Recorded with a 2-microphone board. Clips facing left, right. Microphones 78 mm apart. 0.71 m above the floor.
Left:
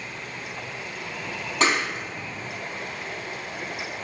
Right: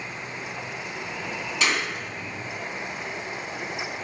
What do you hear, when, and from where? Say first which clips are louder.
1.6 s a clap: left 4 dB; 40° left (ahead or behind), 4.5 m